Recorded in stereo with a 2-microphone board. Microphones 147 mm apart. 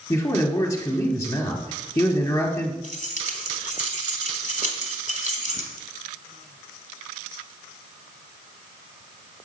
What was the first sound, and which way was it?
A man speaking, 20° left (ahead or behind).